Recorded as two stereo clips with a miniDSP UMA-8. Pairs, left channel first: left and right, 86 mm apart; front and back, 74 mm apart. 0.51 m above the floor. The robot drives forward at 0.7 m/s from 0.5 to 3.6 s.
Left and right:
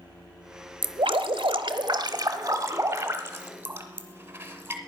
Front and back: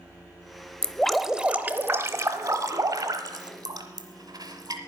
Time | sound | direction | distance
0.8 | dripping | 70° right | 0.8 m